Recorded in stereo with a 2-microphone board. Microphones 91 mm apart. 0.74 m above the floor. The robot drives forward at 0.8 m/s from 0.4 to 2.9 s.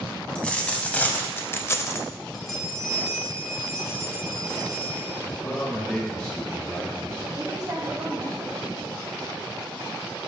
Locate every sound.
0.3 s a dropped coin: 10° left (ahead or behind), 1.2 m; by 2.1 s 25° left (ahead or behind), 0.5 m
2.3 s a bell: centre (ahead or behind), 1.4 m
5.2 s a man speaking: 30° left (ahead or behind), 1.4 m
7.4 s a woman speaking: 40° right (ahead or behind), 1.9 m